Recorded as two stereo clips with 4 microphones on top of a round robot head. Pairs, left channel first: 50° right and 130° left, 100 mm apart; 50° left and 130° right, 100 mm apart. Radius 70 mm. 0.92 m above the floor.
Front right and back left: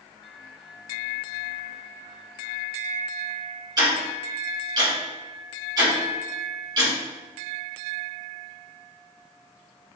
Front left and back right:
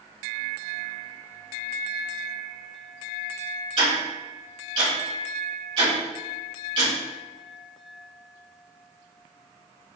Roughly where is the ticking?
Behind.